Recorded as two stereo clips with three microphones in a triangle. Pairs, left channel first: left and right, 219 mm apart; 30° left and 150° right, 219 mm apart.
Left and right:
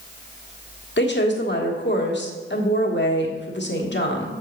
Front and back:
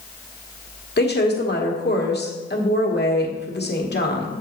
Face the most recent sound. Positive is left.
turn(degrees=65)